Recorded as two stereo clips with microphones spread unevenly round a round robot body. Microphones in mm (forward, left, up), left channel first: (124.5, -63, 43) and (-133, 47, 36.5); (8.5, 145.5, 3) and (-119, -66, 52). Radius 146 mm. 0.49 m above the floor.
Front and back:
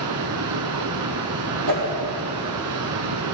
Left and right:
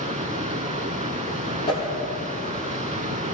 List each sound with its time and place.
0.0 s running water: straight behind, 1.0 m
1.7 s a whoosh: 130° left, 5 m